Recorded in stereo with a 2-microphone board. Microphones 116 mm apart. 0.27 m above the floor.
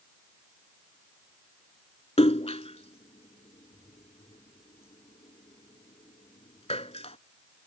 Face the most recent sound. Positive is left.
turn(degrees=55)  # may be behind; listen again after turning